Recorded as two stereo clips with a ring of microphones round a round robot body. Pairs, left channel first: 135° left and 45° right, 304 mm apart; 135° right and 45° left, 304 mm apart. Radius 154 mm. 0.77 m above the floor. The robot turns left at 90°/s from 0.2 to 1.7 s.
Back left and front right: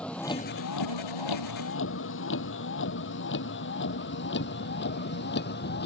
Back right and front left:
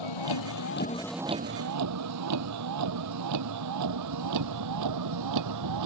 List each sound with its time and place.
0.0 s a vehicle: 140° right; by 5.9 s 75° left